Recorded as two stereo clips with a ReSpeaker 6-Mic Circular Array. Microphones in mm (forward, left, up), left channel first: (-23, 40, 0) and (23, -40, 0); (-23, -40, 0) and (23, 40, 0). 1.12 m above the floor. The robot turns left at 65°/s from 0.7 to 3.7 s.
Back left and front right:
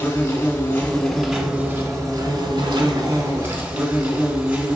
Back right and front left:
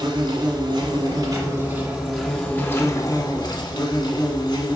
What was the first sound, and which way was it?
An insect, 60° left.